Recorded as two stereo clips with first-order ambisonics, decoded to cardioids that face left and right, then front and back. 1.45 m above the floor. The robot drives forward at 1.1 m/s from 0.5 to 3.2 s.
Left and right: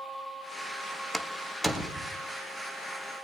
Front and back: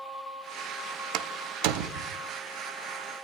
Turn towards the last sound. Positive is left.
turn(degrees=180)